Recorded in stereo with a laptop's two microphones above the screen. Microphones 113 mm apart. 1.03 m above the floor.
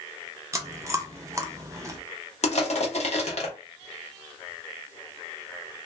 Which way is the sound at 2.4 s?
75° left (ahead or behind).